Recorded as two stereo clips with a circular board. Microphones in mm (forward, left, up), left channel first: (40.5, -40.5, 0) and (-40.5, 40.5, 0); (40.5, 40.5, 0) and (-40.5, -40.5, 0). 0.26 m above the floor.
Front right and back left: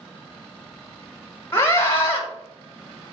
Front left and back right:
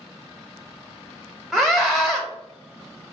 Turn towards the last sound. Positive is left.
turn(degrees=-40)